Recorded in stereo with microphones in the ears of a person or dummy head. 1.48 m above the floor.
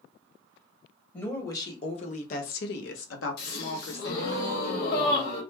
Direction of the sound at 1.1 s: 10° left (ahead or behind).